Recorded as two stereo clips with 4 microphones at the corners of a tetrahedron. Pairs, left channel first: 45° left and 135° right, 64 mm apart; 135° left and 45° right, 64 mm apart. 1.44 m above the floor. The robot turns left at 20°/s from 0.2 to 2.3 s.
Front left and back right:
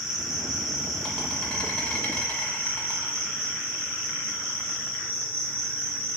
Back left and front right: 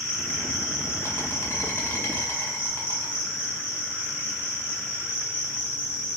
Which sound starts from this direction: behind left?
An insect, at 0.0 s.